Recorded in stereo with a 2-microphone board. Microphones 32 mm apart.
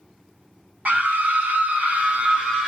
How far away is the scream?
About 1.4 m.